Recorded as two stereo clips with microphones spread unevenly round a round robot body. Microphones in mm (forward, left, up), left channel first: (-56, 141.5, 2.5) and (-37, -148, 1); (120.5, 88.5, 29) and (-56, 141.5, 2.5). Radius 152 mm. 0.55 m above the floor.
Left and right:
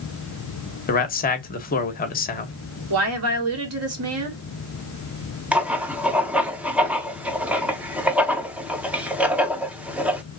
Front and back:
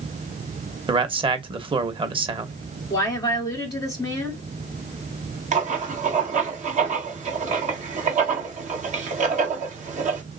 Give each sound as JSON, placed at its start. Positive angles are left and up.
{"t": 0.9, "sound": "a man speaking", "azimuth_deg": 135, "distance_m": 0.9}
{"t": 2.9, "sound": "a woman speaking", "azimuth_deg": -90, "distance_m": 1.5}
{"t": 5.5, "sound": "writing", "azimuth_deg": -170, "distance_m": 0.7}